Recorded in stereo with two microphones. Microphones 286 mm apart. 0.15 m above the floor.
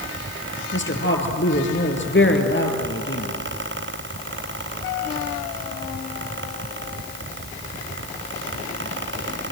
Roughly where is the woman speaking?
Left.